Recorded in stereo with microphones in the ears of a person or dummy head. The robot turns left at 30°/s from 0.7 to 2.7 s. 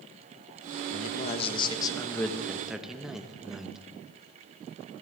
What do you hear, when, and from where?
0.9 s a man speaking: 50° left, 1.1 m; by 3.8 s 5° right, 1.1 m